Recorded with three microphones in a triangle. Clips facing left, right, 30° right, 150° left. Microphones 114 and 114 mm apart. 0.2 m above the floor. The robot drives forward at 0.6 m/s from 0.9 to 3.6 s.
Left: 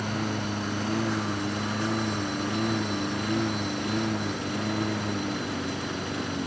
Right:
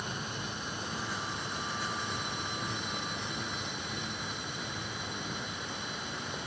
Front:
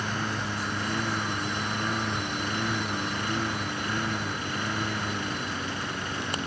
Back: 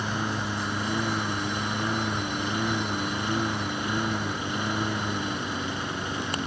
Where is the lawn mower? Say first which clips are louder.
Left 10 dB, back 2 dB; 70° left; by 6.5 s 75° left.